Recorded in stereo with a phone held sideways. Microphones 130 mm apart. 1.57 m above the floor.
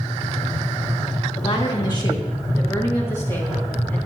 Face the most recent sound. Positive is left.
turn(degrees=15)  # may be behind; listen again after turning